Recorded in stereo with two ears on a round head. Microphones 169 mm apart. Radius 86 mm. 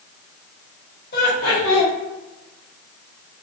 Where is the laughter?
60° left (ahead or behind), 1.3 m.